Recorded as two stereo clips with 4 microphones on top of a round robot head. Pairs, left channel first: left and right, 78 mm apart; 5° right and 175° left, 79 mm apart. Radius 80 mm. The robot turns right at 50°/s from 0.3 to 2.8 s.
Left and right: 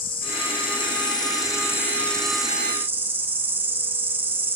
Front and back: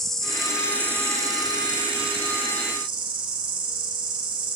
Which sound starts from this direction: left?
An insect, at 0.0 s.